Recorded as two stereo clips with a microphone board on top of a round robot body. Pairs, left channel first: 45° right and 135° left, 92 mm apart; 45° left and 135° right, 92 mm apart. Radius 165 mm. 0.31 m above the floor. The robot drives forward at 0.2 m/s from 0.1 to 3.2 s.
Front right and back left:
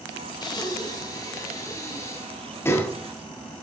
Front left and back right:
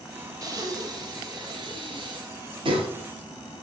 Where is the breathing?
85° right, 1.2 m; by 2.9 s 110° right, 1.3 m.